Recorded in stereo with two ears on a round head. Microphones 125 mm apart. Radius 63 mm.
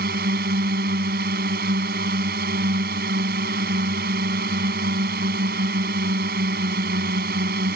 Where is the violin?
I don't hear a violin.